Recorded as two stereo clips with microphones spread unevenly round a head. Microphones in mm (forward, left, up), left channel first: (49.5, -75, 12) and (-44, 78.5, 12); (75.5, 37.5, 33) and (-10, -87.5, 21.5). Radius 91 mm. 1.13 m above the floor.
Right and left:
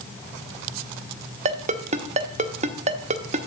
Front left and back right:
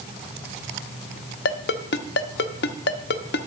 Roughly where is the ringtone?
Left.